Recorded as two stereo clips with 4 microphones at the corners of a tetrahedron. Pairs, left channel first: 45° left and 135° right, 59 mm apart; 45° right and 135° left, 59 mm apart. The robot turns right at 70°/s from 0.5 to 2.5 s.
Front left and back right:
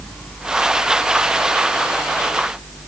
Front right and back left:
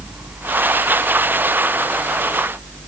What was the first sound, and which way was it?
Only background noise.